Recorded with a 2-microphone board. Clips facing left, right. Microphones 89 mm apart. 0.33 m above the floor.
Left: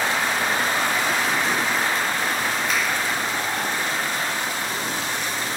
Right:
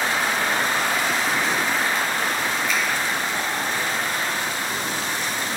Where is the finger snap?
60° left (ahead or behind), 2 m.